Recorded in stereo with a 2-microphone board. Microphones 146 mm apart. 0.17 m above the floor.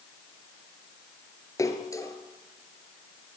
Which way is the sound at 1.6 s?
20° left (ahead or behind).